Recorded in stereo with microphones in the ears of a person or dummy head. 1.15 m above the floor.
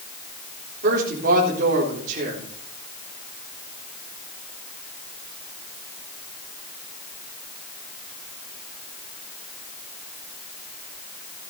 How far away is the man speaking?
About 4 m.